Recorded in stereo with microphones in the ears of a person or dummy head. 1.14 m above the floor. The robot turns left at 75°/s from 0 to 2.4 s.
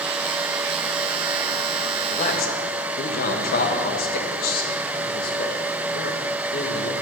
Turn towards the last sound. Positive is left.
turn(degrees=50)  # may be behind; listen again after turning